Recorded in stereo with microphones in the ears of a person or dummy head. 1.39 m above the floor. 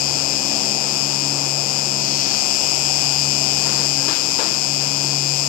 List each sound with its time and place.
0.0 s an insect: 50° left (ahead or behind)